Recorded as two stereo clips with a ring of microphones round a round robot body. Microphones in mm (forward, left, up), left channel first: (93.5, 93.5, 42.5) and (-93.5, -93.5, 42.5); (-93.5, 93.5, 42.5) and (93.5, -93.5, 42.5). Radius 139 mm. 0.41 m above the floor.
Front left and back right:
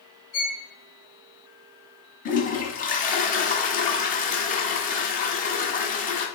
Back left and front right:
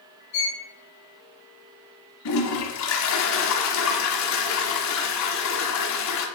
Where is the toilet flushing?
105° left, 1.3 m.